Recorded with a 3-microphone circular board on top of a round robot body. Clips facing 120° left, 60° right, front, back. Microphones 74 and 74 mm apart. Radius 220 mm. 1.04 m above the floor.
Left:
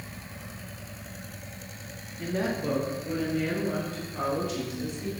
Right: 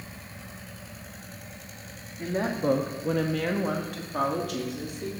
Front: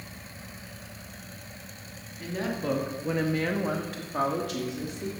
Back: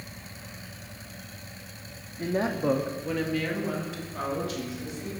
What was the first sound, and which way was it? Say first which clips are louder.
A woman speaking: right 2 dB, back 5 dB; 140° right.